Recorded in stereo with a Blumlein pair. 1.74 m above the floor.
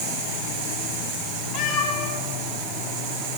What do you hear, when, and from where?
1.5 s a cat meowing: 45° left, 8.5 m